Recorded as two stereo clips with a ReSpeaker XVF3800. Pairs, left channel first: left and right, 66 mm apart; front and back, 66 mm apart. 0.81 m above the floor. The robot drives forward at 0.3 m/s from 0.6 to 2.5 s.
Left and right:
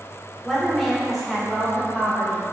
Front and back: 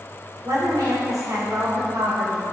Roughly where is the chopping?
No chopping in this recording.